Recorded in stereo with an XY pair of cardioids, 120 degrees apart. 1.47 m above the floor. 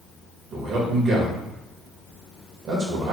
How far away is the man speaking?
About 1.7 m.